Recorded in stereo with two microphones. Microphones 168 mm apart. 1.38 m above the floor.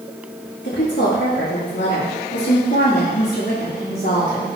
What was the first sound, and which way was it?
A woman speaking, 75° left (ahead or behind).